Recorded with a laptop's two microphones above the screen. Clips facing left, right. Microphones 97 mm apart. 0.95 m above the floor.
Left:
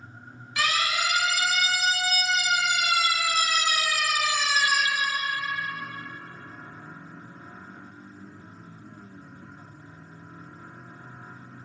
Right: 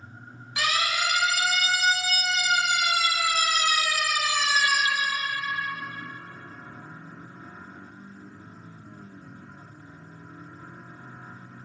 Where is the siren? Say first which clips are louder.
Even; 20° right (ahead or behind), 6 m; by 4.8 s 10° right (ahead or behind), 3.5 m.